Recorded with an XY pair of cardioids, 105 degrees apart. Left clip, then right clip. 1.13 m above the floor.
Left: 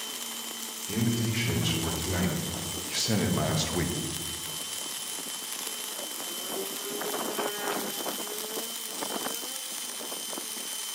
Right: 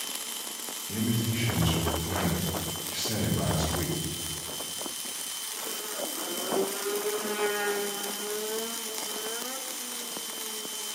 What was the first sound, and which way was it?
A man speaking, 65° left.